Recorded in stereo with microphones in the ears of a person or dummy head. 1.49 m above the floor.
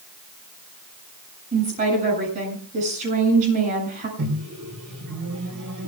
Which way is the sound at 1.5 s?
40° right (ahead or behind).